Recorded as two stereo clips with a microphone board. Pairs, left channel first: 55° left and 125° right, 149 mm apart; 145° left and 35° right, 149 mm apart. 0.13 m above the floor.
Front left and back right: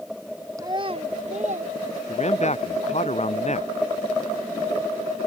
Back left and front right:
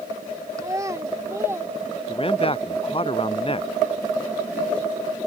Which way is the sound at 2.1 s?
95° left.